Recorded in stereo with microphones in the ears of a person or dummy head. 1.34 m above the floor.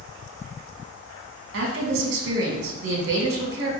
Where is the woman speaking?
70° right (ahead or behind), 1.2 m.